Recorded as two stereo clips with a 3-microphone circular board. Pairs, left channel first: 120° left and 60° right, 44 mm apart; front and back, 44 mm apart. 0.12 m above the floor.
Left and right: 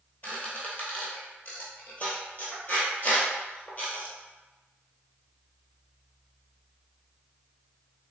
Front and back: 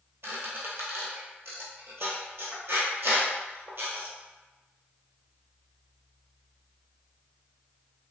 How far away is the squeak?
About 1.1 m.